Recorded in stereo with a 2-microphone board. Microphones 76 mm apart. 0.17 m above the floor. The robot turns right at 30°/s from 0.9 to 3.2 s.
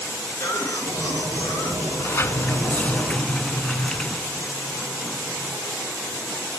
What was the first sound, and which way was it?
A cough, 40° left (ahead or behind).